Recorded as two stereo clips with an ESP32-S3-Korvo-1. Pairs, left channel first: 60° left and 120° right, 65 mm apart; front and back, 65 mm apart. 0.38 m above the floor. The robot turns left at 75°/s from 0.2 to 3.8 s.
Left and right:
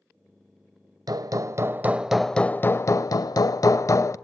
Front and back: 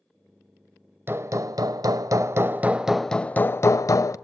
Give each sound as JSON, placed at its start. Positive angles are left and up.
{"t": 1.1, "sound": "hammering", "azimuth_deg": -125, "distance_m": 0.6}